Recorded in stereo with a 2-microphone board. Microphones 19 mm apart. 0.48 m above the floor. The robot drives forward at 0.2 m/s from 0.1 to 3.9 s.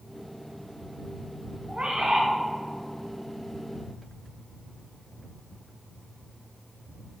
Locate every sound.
1.7 s a bird: 80° right, 1.7 m; by 2.3 s 75° right (ahead or behind), 1.7 m